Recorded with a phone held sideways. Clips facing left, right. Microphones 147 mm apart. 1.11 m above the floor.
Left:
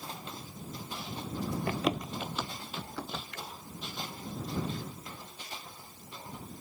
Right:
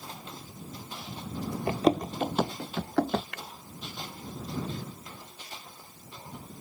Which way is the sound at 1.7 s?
25° right (ahead or behind).